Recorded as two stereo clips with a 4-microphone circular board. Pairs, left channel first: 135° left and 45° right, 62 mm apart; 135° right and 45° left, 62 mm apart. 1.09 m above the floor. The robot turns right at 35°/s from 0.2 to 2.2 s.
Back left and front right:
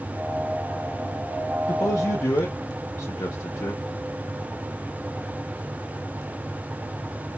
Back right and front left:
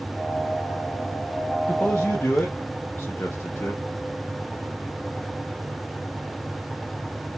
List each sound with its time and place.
1.7 s a man speaking: 155° left, 0.6 m; by 3.8 s 170° left, 0.6 m